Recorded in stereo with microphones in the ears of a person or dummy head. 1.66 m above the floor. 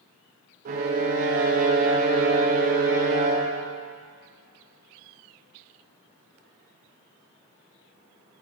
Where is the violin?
45° right (ahead or behind), 0.6 m.